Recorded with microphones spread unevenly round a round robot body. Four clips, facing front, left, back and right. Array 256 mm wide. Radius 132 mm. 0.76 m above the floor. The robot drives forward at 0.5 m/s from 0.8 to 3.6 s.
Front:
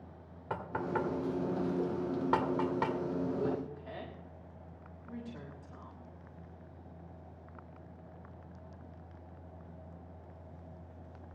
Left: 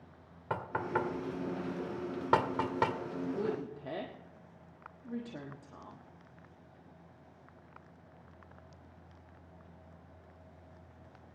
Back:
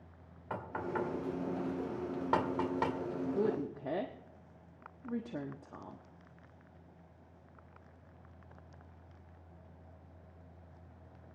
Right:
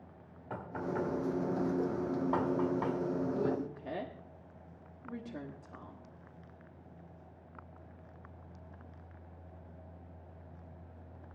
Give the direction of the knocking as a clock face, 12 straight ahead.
10 o'clock.